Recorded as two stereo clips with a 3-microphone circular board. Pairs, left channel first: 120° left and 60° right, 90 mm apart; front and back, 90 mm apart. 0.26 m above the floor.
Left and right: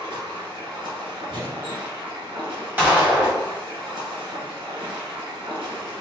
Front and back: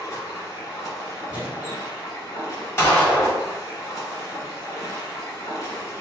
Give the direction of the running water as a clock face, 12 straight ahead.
2 o'clock.